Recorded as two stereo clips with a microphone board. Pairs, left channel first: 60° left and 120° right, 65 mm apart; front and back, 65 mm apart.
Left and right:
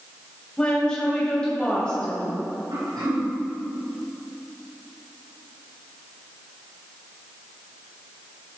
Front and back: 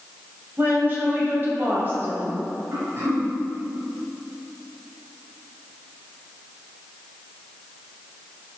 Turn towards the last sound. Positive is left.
turn(degrees=-130)